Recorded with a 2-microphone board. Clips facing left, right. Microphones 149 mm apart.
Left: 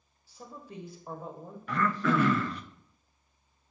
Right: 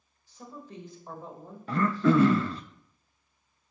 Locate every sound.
0.3 s a woman speaking: 10° left (ahead or behind), 1.2 m
1.7 s throat clearing: 30° right (ahead or behind), 0.5 m